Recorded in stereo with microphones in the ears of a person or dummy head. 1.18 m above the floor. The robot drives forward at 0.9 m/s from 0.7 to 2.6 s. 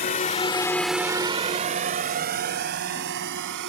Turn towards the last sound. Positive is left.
turn(degrees=-65)  # may be behind; listen again after turning